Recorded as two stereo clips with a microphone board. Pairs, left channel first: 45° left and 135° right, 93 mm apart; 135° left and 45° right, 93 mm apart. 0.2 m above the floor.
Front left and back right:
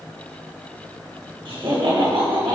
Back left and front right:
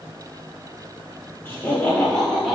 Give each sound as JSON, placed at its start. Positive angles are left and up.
{"t": 1.4, "sound": "laughter", "azimuth_deg": -165, "distance_m": 2.5}